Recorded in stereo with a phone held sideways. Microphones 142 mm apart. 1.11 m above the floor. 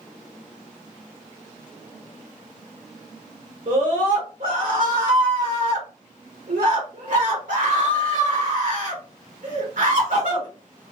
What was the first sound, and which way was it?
A scream, 65° right (ahead or behind).